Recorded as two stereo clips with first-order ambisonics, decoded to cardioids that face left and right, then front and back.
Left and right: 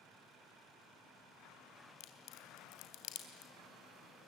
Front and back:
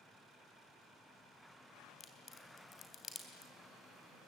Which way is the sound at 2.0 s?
65° left.